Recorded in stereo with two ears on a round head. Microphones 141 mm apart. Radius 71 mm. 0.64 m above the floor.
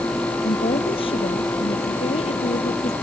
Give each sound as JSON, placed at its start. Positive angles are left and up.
{"t": 0.4, "sound": "a woman speaking", "side_deg": 35}